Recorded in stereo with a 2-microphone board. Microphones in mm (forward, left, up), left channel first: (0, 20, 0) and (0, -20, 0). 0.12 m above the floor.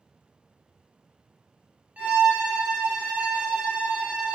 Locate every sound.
2.0 s a violin: 40° right (ahead or behind), 0.6 m